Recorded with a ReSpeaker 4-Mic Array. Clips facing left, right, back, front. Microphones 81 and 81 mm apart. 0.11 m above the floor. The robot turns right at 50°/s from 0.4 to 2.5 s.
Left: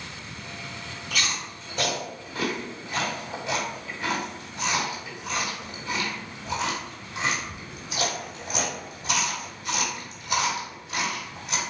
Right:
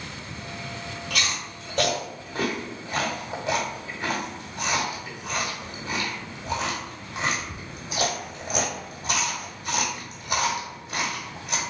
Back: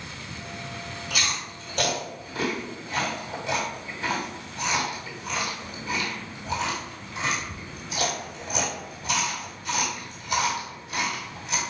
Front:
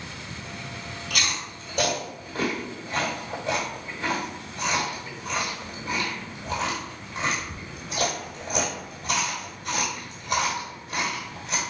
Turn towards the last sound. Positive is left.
turn(degrees=-40)